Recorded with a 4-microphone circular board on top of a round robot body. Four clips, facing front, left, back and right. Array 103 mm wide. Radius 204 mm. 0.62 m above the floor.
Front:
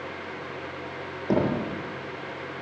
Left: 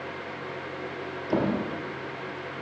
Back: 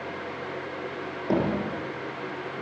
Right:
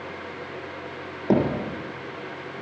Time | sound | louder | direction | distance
1.3 | hammering | right 4 dB, front 1 dB | 90° right | 8.5 m